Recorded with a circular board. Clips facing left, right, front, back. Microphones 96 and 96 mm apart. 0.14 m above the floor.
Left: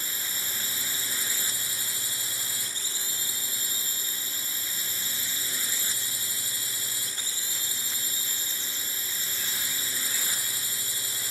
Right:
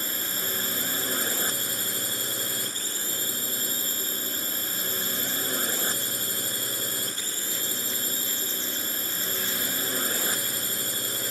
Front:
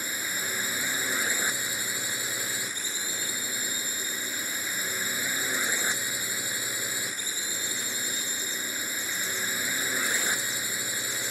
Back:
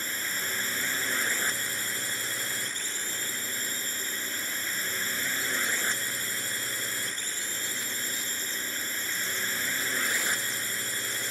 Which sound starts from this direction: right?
A drone, at 0.0 s.